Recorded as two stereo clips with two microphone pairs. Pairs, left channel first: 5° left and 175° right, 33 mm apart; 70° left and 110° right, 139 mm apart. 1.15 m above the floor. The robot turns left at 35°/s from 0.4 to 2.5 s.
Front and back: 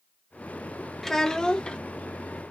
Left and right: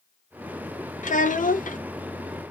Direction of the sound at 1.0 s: 85° left.